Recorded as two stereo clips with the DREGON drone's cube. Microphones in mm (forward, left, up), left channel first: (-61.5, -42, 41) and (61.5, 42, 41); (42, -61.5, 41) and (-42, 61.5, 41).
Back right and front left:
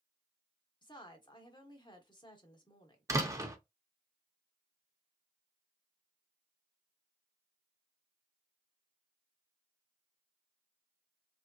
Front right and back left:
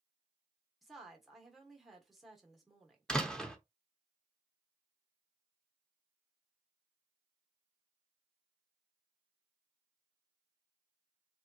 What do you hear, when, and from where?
0.8 s a woman speaking: 145° right, 0.9 m
3.1 s a door slam: 20° left, 0.6 m